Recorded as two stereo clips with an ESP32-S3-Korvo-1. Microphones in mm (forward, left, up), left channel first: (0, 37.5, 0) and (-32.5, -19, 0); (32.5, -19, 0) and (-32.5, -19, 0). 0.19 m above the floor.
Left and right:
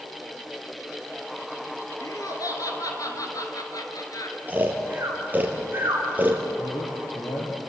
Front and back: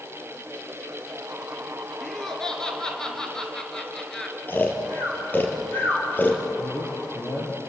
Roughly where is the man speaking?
Ahead left.